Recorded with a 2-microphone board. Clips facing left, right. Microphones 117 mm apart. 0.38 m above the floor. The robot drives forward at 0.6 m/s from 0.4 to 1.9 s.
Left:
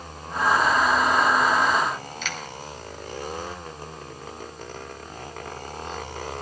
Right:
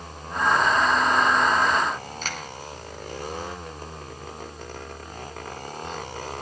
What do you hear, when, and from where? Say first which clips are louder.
2.2 s a finger snap: even; 40° right (ahead or behind), 2.5 m